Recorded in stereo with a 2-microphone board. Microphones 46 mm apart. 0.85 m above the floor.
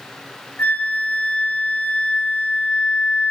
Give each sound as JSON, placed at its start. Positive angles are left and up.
{"t": 0.6, "sound": "a flute", "side_deg": 45, "distance_m": 2.5}